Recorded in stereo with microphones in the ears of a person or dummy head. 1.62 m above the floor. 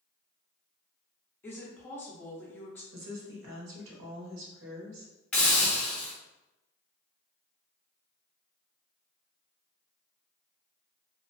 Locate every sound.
1.4 s a woman speaking: 10° left (ahead or behind), 0.5 m
2.9 s a woman speaking: 75° right (ahead or behind), 0.9 m
5.3 s a hiss: 5° left (ahead or behind), 0.7 m